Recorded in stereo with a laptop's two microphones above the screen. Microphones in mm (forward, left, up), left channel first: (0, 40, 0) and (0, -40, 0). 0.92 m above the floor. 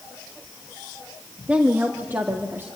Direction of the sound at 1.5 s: 15° right (ahead or behind).